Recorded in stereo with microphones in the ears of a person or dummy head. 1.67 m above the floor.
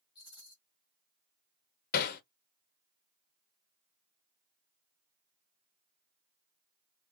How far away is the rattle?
About 2.5 m.